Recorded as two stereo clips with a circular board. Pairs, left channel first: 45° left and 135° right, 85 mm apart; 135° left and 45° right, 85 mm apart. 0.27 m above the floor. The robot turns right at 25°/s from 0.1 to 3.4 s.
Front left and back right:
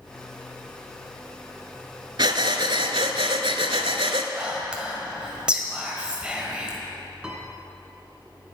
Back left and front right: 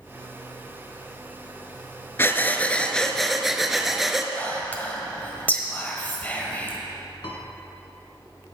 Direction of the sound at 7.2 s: 145° left.